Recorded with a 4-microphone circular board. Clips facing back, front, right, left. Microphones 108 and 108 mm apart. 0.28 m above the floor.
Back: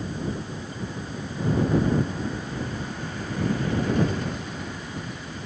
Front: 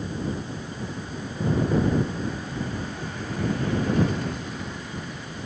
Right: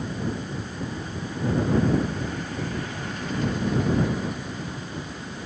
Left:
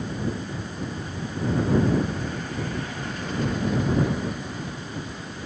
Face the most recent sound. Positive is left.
No sound to turn to.